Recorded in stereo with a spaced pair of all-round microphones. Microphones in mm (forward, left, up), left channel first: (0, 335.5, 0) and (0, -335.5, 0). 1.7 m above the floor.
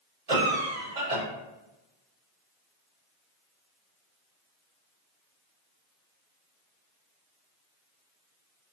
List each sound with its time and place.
0.3 s a cough: 60° right (ahead or behind), 1.0 m